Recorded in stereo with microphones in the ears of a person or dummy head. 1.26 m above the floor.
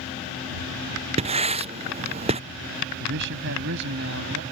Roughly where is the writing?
Right.